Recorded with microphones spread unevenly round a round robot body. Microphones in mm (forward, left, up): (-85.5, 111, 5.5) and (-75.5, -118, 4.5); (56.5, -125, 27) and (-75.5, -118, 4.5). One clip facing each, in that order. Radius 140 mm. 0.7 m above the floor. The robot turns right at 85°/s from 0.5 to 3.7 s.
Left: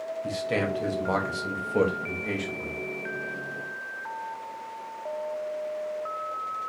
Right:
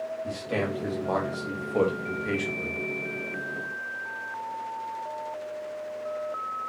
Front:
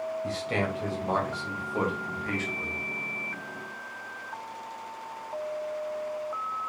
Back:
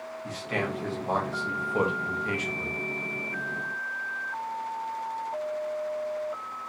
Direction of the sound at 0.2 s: 45° left.